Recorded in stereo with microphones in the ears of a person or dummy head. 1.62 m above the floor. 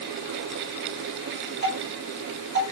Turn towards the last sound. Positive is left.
turn(degrees=-50)  # may be behind; listen again after turning